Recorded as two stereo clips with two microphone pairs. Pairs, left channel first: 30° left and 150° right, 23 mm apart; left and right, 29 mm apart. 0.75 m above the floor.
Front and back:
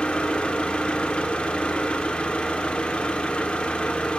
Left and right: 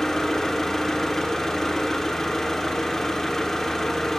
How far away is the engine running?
About 0.8 m.